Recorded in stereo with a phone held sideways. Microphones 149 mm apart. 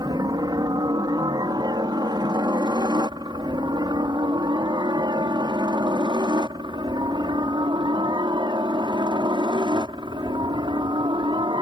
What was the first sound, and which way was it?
A helicopter, 30° right (ahead or behind).